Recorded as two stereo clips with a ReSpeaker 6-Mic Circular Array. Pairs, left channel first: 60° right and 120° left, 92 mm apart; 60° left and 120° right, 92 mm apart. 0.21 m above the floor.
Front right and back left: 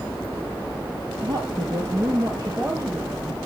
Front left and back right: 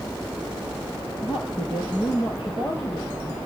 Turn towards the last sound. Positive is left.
turn(degrees=65)